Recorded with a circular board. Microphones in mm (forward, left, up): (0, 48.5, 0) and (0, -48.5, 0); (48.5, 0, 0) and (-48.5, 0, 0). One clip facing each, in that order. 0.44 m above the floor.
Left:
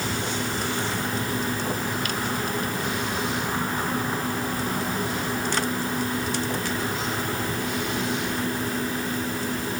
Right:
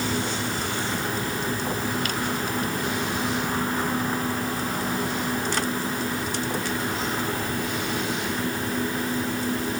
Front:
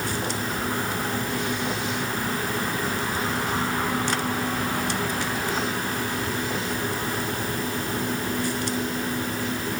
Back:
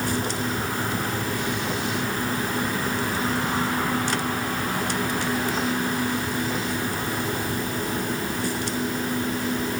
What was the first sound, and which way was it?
Only background noise.